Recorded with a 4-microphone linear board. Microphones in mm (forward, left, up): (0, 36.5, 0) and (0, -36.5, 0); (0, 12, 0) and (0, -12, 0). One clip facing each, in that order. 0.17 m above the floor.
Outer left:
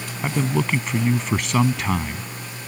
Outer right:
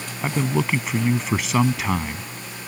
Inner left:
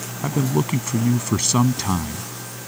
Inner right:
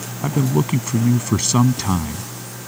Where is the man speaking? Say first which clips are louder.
Even, inner right 2 dB; centre (ahead or behind).